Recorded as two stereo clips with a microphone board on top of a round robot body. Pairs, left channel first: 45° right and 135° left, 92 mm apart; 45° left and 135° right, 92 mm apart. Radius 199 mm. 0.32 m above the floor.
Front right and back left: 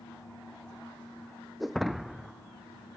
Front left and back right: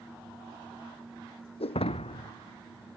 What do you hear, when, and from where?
1.6 s breaking glass: 45° left